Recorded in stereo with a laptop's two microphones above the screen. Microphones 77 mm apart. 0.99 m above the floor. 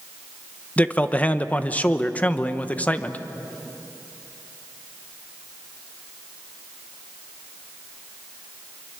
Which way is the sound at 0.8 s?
20° left (ahead or behind).